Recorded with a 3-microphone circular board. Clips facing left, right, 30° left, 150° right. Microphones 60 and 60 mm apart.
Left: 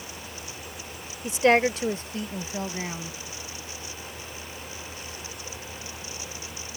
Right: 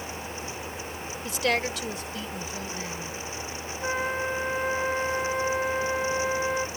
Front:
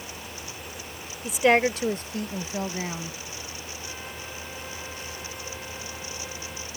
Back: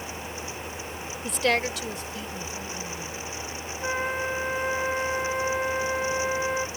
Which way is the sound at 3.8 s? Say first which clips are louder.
Right 13 dB, back 16 dB; 115° right.